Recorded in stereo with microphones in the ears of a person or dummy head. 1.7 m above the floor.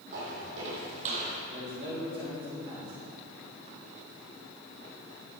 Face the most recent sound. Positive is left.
turn(degrees=-35)  # may be behind; listen again after turning